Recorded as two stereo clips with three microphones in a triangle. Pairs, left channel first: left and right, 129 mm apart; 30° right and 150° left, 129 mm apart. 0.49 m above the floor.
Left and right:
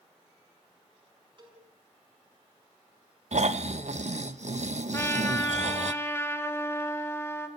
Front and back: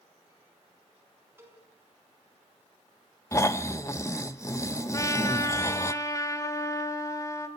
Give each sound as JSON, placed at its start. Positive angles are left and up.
{"t": 1.4, "sound": "a cowbell", "azimuth_deg": -135, "distance_m": 5.0}
{"t": 3.3, "sound": "snoring", "azimuth_deg": -95, "distance_m": 0.8}
{"t": 4.9, "sound": "a trumpet", "azimuth_deg": 25, "distance_m": 1.8}